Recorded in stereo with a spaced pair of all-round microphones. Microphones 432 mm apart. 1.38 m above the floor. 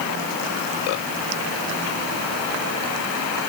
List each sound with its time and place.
Only background noise.